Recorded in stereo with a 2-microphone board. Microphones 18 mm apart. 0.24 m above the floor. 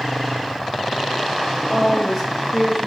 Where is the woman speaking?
15° right (ahead or behind), 1.0 m.